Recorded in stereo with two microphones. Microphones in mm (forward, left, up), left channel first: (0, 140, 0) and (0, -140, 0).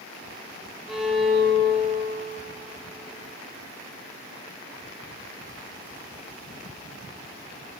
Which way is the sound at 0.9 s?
Centre (ahead or behind).